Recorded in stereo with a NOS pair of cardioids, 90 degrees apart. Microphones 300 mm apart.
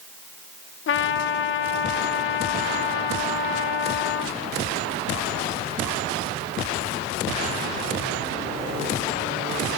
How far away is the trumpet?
About 0.8 m.